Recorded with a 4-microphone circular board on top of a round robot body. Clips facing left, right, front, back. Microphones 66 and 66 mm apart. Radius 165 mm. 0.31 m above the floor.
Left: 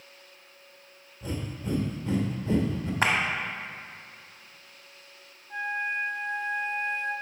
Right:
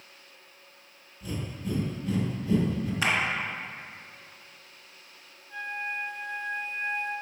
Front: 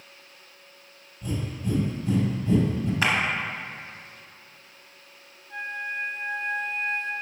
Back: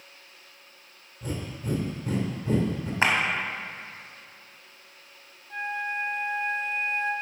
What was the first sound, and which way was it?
Breathing, 145° left.